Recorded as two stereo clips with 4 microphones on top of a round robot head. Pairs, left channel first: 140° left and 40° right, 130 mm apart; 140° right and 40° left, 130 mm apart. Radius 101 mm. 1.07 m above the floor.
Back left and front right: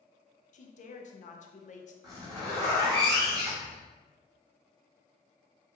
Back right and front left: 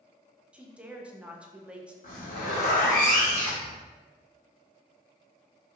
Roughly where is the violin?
I don't hear a violin.